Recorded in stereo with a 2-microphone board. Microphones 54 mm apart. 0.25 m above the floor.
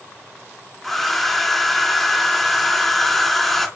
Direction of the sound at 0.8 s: 5° left (ahead or behind).